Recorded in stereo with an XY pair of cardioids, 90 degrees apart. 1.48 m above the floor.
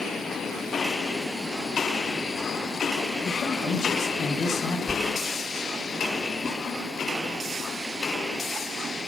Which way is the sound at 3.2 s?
65° left.